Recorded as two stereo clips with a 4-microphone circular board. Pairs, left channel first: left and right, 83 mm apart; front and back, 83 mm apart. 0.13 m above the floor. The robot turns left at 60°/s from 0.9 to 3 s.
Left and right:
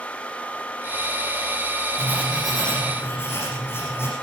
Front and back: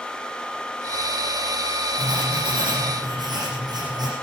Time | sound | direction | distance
2.0 | writing | 150° right | 7.5 m